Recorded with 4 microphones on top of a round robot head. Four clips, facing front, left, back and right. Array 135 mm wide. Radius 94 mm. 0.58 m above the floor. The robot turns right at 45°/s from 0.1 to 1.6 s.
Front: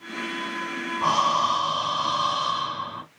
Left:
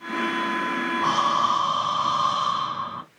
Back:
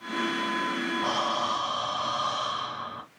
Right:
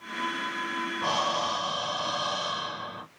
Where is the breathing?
30° left, 4.5 m; by 3.0 s 55° left, 4.5 m.